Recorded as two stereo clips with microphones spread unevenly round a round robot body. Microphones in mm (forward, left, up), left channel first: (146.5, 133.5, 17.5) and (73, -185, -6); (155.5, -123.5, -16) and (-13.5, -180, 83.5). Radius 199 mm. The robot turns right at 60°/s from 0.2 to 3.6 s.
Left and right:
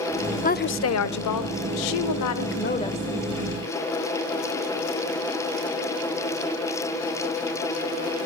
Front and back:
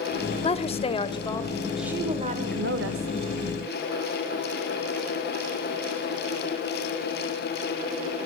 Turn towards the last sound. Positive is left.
turn(degrees=-160)